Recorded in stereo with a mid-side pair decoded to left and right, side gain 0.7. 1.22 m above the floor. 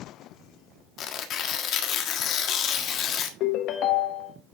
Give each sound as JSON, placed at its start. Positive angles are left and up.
{"t": 1.0, "sound": "tearing paper", "azimuth_deg": 50, "distance_m": 1.5}
{"t": 3.4, "sound": "a ringtone", "azimuth_deg": 55, "distance_m": 1.1}